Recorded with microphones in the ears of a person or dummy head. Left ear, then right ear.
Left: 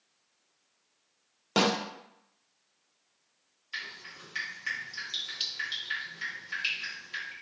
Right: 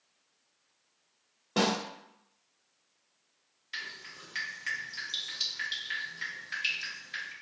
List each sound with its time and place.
1.6 s a snare drum: 70° left (ahead or behind), 0.8 m
3.7 s dripping: 5° left (ahead or behind), 1.0 m